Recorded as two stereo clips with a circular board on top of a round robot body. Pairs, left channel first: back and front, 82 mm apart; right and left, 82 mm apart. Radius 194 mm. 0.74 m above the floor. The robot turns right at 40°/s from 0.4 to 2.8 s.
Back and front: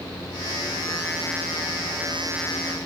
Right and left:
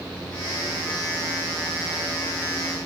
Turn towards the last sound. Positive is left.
No sound to turn to.